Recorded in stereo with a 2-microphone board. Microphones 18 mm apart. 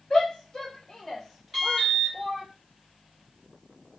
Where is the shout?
50° left (ahead or behind), 0.9 m; by 2.4 s 35° right (ahead or behind), 1.0 m.